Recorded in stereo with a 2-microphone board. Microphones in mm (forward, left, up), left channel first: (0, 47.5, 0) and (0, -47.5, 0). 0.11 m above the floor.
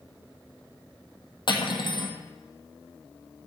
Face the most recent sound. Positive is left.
turn(degrees=55)  # may be behind; listen again after turning